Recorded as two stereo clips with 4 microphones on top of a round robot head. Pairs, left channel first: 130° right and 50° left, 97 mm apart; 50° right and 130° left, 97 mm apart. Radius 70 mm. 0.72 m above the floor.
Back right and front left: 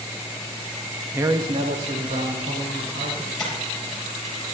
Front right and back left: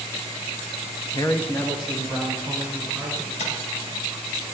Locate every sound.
1.1 s a man speaking: 15° right, 0.6 m; by 3.3 s 55° left, 3 m
3.4 s tapping: 50° right, 4.5 m